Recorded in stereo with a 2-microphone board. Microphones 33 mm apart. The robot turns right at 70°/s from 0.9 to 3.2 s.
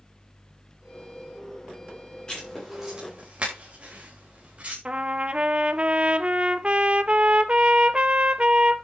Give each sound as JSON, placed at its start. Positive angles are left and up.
{"t": 2.3, "sound": "writing", "side_deg": 25, "distance_m": 6.0}
{"t": 4.8, "sound": "a trumpet", "side_deg": -35, "distance_m": 0.8}